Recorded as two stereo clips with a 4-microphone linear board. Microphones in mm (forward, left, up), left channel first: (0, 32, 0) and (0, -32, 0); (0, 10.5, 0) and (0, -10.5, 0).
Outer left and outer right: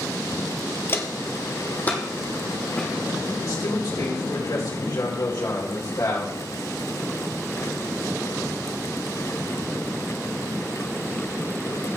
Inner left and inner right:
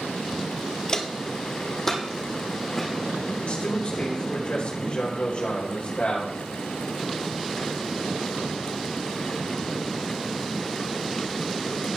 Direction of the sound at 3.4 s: 70° left (ahead or behind).